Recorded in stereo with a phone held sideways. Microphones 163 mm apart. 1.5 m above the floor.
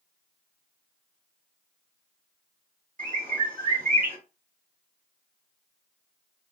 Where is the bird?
50° right (ahead or behind), 1.7 m.